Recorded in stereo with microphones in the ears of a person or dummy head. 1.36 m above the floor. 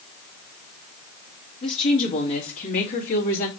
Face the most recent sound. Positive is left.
turn(degrees=55)  # may be behind; listen again after turning